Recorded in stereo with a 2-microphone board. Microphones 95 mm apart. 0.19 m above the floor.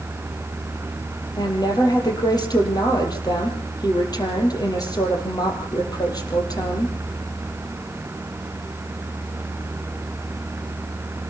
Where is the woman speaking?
45° left (ahead or behind), 5 m.